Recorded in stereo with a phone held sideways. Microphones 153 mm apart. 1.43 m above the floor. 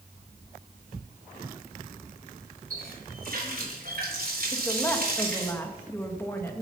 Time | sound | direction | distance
2.7 | a running tap | 65° right (ahead or behind) | 3.5 m
4.5 | a woman speaking | 15° left (ahead or behind) | 1.8 m